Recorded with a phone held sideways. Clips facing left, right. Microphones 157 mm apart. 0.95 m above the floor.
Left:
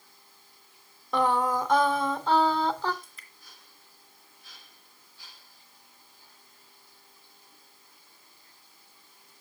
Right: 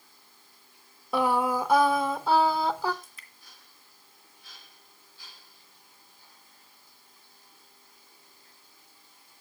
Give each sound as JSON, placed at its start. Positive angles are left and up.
{"t": 1.1, "sound": "singing", "side_deg": -10, "distance_m": 0.9}
{"t": 3.0, "sound": "dripping", "side_deg": -5, "distance_m": 2.0}